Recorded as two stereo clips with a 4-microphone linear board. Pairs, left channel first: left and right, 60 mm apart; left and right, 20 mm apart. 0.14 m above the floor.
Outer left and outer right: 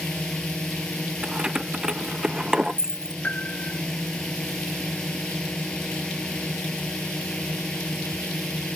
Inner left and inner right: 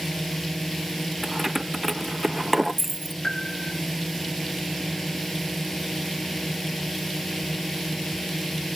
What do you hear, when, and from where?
0.0 s a drone: 15° left (ahead or behind)
1.2 s keys jangling: 15° right (ahead or behind)
3.2 s a piano: 30° left (ahead or behind)